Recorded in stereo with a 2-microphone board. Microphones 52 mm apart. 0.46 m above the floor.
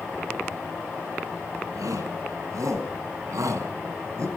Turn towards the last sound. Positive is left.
turn(degrees=-65)  # may be behind; listen again after turning